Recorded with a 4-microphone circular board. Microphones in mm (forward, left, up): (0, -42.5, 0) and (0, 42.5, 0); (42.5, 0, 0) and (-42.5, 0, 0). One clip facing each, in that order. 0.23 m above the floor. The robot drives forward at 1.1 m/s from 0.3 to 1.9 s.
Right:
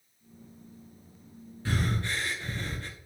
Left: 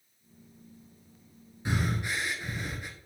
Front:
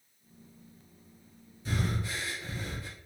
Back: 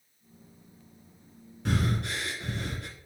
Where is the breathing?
160° left, 1.0 m; by 2.9 s 165° left, 1.3 m.